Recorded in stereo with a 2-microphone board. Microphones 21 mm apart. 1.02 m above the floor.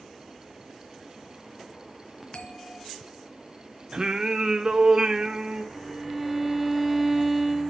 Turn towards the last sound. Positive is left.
turn(degrees=-5)  # may be behind; listen again after turning